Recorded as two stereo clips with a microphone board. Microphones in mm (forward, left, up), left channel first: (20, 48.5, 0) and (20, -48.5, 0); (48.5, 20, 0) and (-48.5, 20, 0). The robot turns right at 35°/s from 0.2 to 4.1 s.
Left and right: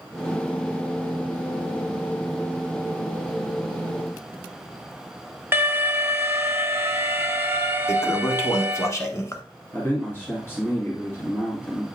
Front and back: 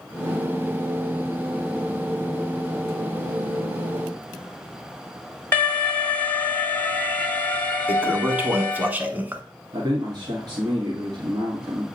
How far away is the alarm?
About 1.1 m.